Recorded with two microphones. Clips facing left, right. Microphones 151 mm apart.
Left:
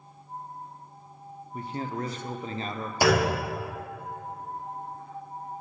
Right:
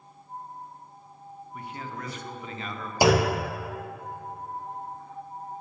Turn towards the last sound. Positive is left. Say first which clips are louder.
# right 2 dB
turn(degrees=-20)  # may be behind; listen again after turning